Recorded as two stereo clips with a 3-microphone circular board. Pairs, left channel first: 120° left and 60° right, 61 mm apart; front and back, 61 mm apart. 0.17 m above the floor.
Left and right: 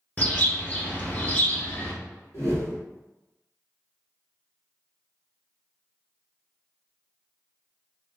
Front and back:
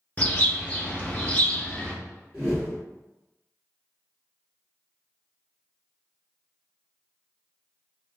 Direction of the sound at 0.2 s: 65° left.